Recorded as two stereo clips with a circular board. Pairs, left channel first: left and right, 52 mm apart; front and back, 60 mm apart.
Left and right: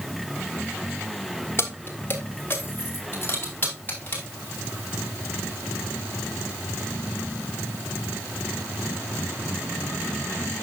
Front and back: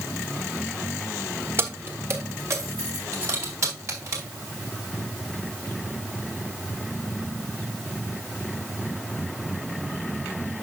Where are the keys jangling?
130° left, 1.3 m; by 4.2 s 145° left, 4.5 m.